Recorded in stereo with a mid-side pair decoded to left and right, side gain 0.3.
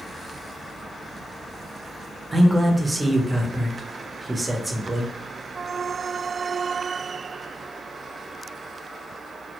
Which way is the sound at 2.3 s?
20° right.